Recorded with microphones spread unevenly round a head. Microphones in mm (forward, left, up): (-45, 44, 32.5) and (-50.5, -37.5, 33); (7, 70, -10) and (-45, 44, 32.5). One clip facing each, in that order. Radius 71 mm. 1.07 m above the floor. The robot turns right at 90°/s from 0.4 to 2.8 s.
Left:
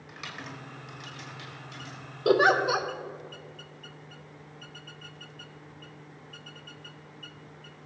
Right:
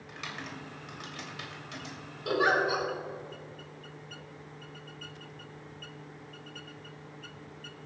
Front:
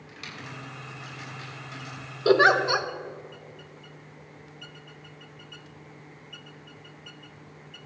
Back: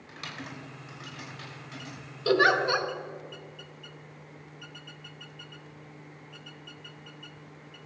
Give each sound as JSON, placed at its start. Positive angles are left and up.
{"t": 0.1, "sound": "typing on a keyboard", "azimuth_deg": 170, "distance_m": 3.0}
{"t": 2.2, "sound": "a giggle", "azimuth_deg": 45, "distance_m": 1.0}